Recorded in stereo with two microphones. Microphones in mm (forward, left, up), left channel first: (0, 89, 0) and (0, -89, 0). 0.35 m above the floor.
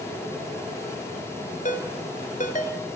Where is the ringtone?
45° left (ahead or behind), 4 m.